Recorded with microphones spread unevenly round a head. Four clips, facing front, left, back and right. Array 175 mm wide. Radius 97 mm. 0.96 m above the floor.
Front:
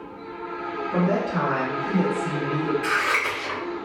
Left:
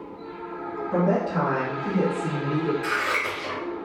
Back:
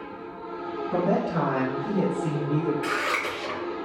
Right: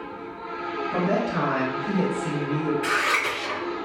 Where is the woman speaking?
150° left, 1.3 m; by 2.7 s 110° left, 1.7 m.